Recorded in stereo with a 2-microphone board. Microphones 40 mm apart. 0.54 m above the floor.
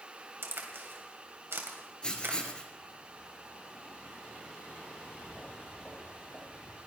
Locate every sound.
0.4 s a crack: 70° right (ahead or behind), 2.5 m
2.0 s writing: 25° left (ahead or behind), 1.8 m
4.9 s footsteps: 25° left (ahead or behind), 9 m; by 6.8 s 15° left (ahead or behind), 7 m